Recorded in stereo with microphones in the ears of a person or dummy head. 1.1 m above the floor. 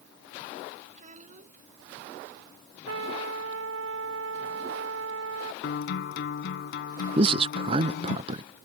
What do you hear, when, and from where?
0.9 s a child speaking: 40° right (ahead or behind)
2.9 s a trumpet: 85° right
5.6 s a guitar: 75° left (ahead or behind)
7.2 s a man speaking: 30° right (ahead or behind)